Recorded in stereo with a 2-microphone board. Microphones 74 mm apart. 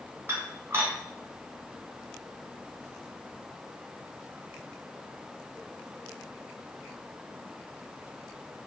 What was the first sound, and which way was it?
Dishes clattering, 30° right (ahead or behind).